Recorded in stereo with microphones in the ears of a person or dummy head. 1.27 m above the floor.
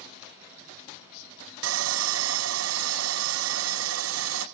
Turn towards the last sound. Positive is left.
turn(degrees=-85)